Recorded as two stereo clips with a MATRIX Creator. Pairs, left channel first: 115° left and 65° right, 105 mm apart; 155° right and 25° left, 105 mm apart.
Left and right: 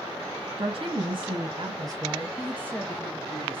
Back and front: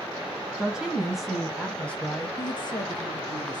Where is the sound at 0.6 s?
60° right, 2.5 m; by 2.3 s 110° right, 1.3 m.